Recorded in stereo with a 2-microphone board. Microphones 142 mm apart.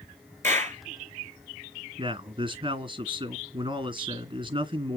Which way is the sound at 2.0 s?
35° right (ahead or behind).